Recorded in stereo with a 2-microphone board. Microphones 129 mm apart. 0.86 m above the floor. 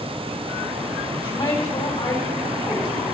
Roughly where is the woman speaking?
Left.